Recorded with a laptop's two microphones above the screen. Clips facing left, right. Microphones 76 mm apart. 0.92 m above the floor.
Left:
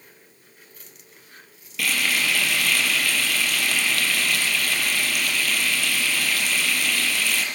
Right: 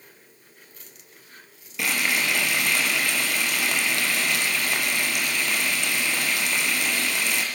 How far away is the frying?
About 4.5 m.